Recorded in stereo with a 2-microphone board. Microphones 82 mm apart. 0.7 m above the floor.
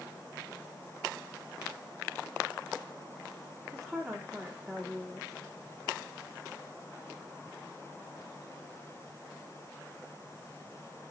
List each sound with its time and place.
3.7 s a woman speaking: centre (ahead or behind), 1.1 m